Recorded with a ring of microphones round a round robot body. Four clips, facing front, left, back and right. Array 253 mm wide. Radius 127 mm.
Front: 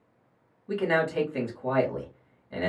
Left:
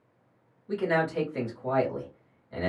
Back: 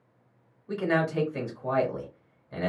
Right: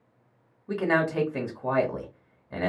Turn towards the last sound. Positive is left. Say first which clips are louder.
# right 2 dB, front 1 dB
turn(degrees=-80)